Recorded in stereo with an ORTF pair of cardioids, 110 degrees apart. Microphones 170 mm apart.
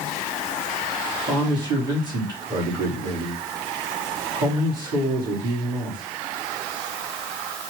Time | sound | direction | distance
1.3 | a man speaking | 30° right | 3.5 m